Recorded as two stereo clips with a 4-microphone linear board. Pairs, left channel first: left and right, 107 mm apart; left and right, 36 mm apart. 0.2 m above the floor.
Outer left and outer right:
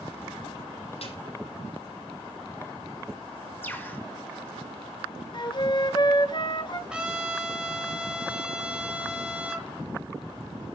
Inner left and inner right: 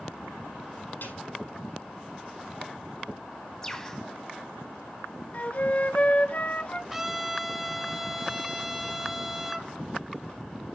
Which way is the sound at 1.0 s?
70° left (ahead or behind).